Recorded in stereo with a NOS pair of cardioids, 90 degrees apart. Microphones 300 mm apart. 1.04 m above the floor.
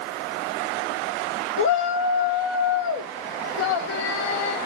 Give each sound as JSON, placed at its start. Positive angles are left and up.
{"t": 1.6, "sound": "a shout", "azimuth_deg": 45, "distance_m": 1.2}